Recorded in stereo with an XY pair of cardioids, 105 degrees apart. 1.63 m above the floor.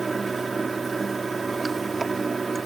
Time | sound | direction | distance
0.0 | running water | 30° right | ?